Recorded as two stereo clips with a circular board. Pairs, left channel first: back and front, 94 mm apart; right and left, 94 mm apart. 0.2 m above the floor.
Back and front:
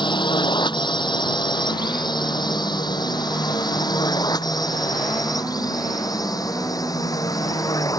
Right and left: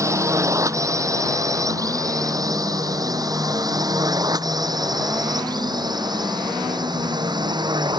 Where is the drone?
145° left; by 8.0 s 130° left.